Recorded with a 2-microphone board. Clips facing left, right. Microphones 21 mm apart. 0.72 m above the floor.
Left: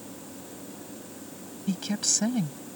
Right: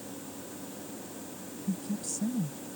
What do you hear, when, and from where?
1.7 s a woman speaking: 75° left (ahead or behind)